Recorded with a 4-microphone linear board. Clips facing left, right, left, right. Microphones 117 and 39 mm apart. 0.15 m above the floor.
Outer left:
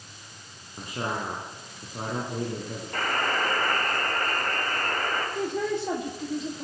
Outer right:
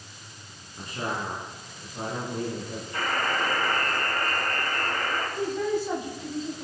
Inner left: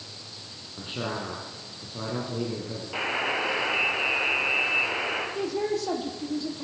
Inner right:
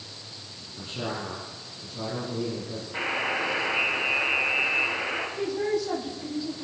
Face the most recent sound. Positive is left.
turn(degrees=70)  # may be behind; listen again after turning